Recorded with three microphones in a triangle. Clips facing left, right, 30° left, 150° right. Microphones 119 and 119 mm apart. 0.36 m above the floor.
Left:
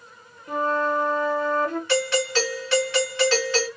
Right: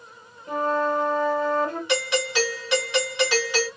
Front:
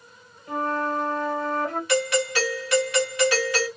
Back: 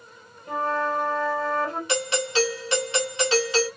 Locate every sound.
0.5 s a flute: 105° right, 2 m
1.9 s a doorbell: 145° right, 1.8 m